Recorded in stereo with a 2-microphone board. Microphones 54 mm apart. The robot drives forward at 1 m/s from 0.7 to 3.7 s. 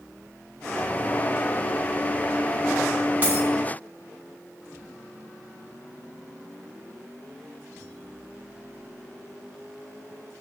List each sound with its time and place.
3.2 s a dropped coin: 30° right (ahead or behind), 2.5 m